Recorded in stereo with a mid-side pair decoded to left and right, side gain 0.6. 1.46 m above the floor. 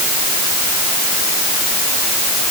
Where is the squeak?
No squeak in this recording.